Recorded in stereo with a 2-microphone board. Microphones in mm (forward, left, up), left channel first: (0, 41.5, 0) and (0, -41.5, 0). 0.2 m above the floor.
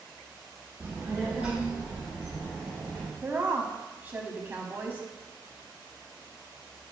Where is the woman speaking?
20° right (ahead or behind), 1.0 m.